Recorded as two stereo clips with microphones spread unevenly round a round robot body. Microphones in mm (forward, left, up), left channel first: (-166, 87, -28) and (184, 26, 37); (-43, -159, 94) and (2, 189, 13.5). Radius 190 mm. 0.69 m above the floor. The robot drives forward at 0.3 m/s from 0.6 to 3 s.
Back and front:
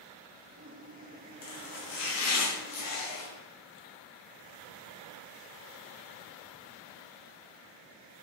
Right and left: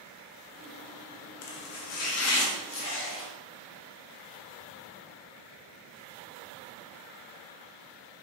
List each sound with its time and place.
1.4 s chopping: 140° right, 0.8 m; by 3.3 s 155° right, 1.2 m